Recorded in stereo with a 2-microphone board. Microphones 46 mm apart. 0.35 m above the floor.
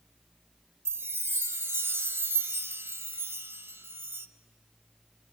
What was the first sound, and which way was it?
A chime, 70° right (ahead or behind).